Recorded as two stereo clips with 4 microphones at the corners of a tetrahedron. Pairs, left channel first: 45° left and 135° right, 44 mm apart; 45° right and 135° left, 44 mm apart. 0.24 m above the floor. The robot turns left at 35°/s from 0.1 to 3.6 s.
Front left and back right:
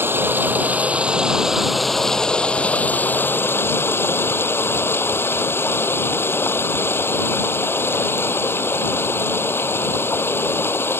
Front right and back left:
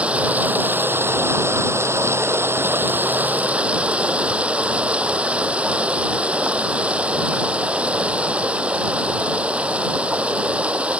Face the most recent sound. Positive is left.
turn(degrees=75)